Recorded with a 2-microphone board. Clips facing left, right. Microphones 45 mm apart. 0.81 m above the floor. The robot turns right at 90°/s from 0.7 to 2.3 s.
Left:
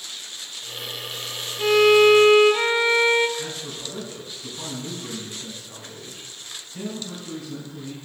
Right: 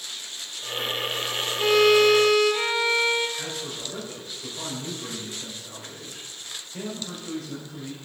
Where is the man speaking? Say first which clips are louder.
Left 1 dB; 70° right (ahead or behind), 2.5 m.